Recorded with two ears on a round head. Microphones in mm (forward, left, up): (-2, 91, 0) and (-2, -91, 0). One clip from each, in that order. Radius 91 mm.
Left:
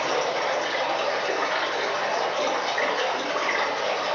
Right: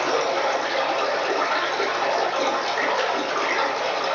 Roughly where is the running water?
Right.